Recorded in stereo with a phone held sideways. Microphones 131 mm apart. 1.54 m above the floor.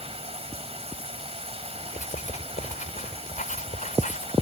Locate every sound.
0.0 s running water: 50° right (ahead or behind)
1.9 s writing: 80° left